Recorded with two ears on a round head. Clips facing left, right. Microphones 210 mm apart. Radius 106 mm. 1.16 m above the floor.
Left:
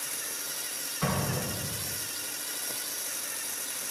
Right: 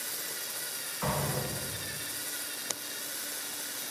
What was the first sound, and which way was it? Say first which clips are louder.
An explosion: left 2 dB; 55° left (ahead or behind).